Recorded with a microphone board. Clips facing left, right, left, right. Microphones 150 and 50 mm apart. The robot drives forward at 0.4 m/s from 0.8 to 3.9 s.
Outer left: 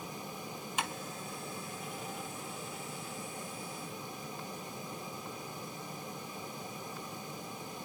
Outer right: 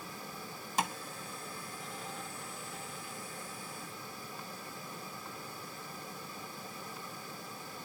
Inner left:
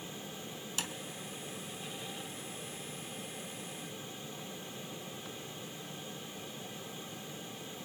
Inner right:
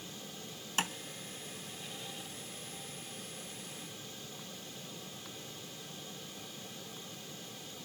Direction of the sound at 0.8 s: 40° right (ahead or behind).